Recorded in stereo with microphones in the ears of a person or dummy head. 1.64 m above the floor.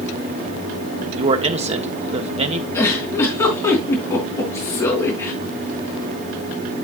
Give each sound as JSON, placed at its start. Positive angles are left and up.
{"t": 1.2, "sound": "a man speaking", "side_deg": -25, "distance_m": 0.9}
{"t": 2.7, "sound": "a giggle", "side_deg": 20, "distance_m": 4.0}